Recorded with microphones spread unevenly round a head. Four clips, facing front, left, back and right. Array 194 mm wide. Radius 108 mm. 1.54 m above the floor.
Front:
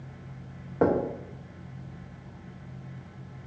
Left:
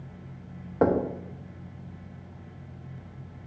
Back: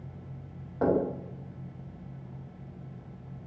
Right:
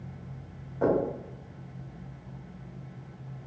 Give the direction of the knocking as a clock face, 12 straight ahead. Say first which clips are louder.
Left 2 dB, front 2 dB; 10 o'clock.